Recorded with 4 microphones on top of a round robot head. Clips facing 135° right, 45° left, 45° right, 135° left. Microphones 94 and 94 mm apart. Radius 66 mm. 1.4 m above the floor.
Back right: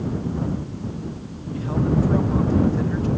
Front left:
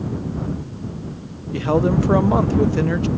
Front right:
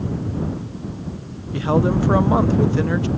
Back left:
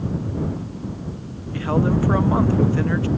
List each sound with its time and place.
1.5 s a man speaking: 25° left